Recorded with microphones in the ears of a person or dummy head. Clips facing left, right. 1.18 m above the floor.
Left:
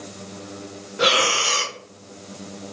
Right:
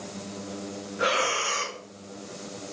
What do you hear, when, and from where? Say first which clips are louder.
1.0 s breathing: left 5 dB; 45° left (ahead or behind), 1.0 m